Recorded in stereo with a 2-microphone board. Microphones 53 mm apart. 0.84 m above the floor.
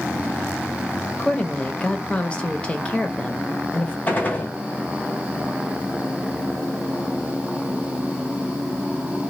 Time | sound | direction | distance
1.1 | a woman speaking | 20° left (ahead or behind) | 0.7 m
4.1 | a gunshot | 30° left (ahead or behind) | 0.9 m